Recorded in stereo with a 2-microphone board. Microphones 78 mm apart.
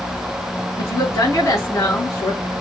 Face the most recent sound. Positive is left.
turn(degrees=35)  # may be behind; listen again after turning